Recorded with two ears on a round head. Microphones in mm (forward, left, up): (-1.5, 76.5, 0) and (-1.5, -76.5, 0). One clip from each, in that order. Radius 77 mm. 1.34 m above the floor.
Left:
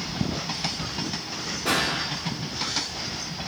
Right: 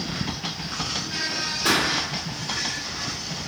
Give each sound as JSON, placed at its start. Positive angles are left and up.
{"t": 1.6, "sound": "a pop", "side_deg": -70, "distance_m": 2.0}